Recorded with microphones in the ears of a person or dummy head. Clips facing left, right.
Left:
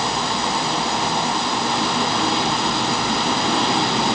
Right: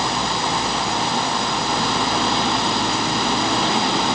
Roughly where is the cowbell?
No cowbell in this recording.